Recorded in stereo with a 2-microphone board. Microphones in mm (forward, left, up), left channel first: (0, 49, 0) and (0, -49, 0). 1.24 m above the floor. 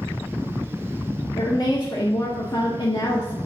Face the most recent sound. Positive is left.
turn(degrees=45)  # may be behind; listen again after turning